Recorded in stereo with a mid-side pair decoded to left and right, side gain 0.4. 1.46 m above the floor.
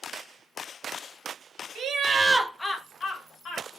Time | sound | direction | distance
1.8 | laughter | 70° right | 0.8 m